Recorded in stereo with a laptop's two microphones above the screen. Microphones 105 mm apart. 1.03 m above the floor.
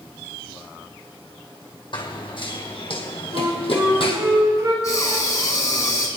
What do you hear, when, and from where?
1.9 s running footsteps: 55° left (ahead or behind), 3 m; by 4.2 s 60° left (ahead or behind), 2 m
3.3 s a flute: 35° right (ahead or behind), 2.5 m
4.8 s breathing: 35° left (ahead or behind), 1.8 m